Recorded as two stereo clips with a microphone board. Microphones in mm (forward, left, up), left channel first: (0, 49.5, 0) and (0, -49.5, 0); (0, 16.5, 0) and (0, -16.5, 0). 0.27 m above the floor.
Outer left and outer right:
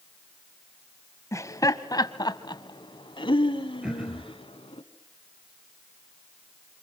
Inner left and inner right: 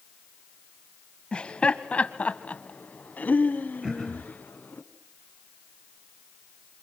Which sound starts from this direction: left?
Laughter, at 1.3 s.